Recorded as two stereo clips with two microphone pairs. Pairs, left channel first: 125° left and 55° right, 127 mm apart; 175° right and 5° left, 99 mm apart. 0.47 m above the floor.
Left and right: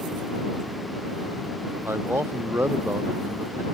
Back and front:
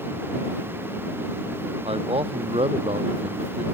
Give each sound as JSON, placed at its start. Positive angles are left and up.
{"t": 1.9, "sound": "a man speaking", "azimuth_deg": 15}